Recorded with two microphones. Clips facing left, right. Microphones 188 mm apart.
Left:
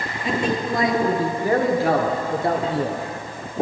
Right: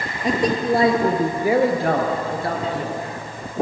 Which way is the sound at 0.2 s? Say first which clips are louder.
Right 3 dB; 45° right (ahead or behind).